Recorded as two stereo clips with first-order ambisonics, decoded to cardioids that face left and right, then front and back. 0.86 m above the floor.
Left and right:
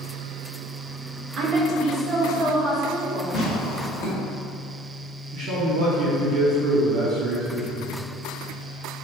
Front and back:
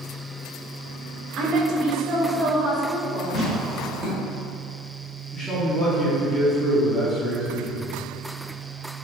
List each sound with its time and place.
1.4 s a woman speaking: 140° right, 0.5 m; by 3.2 s 155° right, 1.5 m
3.3 s tearing paper: 120° left, 1.0 m
5.3 s a man speaking: 95° right, 0.7 m